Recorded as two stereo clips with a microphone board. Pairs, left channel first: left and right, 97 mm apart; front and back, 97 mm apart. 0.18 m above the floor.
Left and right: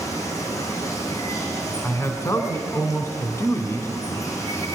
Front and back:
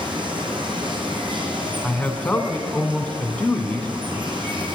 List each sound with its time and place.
0.0 s running water: 145° left, 3 m
1.8 s a man speaking: 65° left, 1.7 m